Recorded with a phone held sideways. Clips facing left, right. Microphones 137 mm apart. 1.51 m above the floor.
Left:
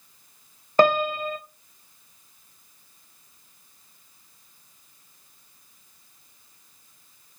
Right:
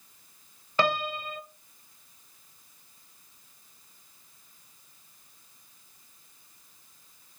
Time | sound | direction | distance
0.8 | a piano | 45° left (ahead or behind) | 0.6 m